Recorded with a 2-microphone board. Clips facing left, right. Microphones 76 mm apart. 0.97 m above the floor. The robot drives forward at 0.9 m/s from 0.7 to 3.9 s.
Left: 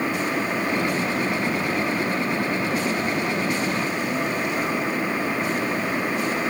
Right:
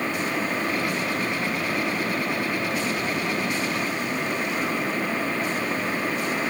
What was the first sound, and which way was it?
Only background noise.